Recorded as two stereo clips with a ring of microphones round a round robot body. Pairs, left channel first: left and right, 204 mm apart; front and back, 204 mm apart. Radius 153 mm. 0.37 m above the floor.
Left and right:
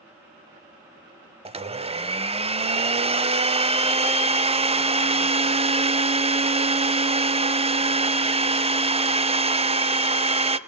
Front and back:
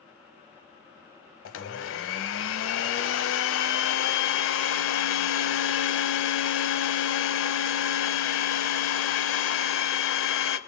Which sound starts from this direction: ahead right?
A blender, at 1.4 s.